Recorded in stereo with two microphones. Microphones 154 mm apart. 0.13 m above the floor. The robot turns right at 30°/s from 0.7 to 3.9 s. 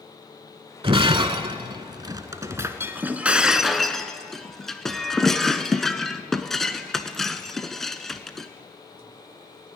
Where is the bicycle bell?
No bicycle bell in this recording.